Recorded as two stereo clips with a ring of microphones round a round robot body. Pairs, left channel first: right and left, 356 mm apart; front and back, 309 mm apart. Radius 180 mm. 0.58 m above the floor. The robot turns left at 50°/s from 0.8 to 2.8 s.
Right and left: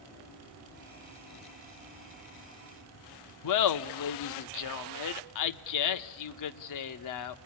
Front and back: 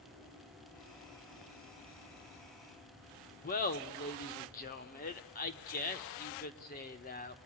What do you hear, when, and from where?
3.4 s laughter: 60° right, 1.1 m